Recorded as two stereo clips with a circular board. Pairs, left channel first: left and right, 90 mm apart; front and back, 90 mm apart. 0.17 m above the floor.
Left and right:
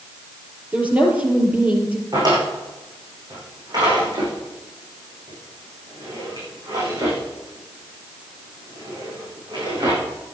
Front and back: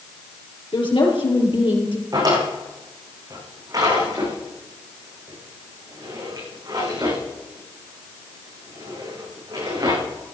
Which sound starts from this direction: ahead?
A woman speaking, at 0.7 s.